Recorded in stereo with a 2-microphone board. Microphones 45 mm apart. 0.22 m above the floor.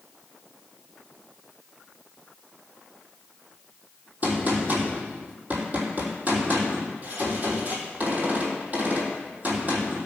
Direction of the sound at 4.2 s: 35° right (ahead or behind).